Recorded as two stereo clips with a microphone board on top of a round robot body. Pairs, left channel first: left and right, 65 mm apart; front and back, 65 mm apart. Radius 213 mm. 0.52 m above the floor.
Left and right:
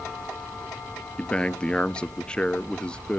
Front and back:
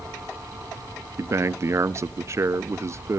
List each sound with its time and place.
1.2 s a man speaking: 160° left, 0.8 m